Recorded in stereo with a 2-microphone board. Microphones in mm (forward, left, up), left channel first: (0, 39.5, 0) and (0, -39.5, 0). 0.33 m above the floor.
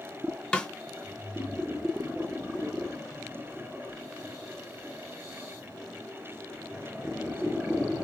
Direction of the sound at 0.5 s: 10° left (ahead or behind).